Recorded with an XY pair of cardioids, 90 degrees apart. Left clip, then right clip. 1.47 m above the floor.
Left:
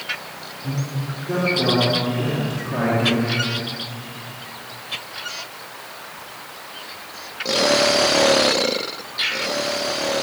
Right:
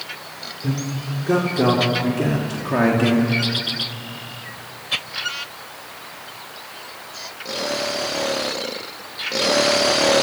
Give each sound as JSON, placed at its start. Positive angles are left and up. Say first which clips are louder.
{"t": 0.6, "sound": "a man speaking", "louder": "right 2 dB", "azimuth_deg": -65, "distance_m": 5.5}